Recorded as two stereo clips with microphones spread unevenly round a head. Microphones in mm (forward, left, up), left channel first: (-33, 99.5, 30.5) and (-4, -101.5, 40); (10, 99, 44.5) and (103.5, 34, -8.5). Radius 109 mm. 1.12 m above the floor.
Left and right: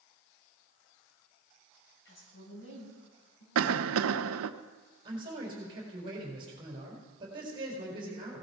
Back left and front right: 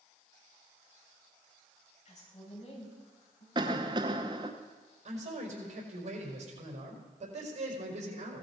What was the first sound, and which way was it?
A woman speaking, 130° left.